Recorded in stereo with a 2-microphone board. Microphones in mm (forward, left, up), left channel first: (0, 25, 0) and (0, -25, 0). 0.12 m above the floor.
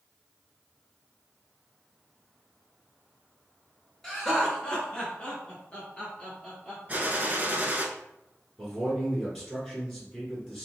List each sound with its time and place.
4.0 s laughter: 5° left (ahead or behind), 1.4 m; by 6.8 s 20° left (ahead or behind), 2 m
6.9 s a gunshot: 35° right (ahead or behind), 0.6 m
8.6 s a man speaking: centre (ahead or behind), 1.4 m